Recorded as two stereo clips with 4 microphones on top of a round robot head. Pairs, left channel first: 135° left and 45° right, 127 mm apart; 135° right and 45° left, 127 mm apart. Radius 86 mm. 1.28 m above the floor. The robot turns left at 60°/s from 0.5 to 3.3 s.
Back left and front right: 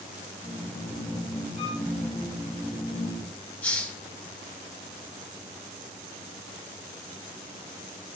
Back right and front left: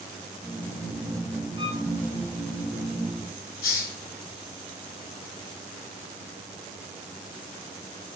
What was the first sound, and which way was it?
A violin, 95° left.